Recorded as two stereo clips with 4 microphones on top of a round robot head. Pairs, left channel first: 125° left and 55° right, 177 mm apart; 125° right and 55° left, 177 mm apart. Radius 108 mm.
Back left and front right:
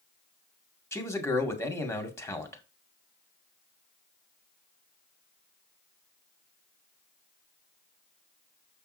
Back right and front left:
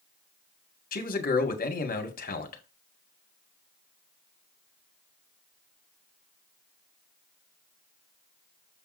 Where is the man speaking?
160° right, 2 m.